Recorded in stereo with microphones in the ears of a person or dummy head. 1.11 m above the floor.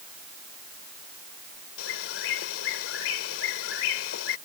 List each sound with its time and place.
1.8 s a bird: 80° left